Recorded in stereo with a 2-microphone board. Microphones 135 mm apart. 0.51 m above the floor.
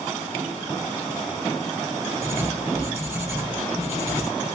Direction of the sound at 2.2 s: 20° right (ahead or behind).